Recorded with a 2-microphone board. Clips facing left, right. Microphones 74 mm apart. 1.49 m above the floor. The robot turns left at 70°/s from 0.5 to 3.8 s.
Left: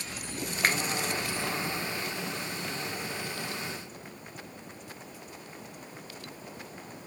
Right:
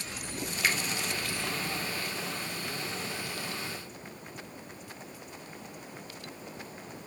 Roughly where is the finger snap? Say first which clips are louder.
Left 2 dB; left.